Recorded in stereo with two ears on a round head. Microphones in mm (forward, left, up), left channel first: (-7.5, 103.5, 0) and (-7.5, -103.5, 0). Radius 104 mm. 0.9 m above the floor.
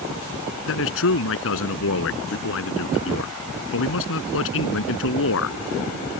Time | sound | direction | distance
0.7 | a man speaking | 65° left (ahead or behind) | ?